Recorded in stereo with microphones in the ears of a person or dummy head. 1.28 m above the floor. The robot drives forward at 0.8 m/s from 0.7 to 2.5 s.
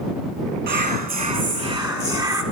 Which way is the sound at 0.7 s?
45° right (ahead or behind).